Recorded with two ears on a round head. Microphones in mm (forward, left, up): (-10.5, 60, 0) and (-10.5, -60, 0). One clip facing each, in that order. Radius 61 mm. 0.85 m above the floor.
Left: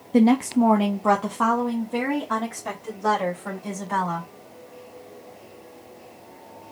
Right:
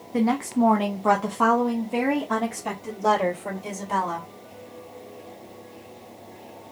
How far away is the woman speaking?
About 0.6 m.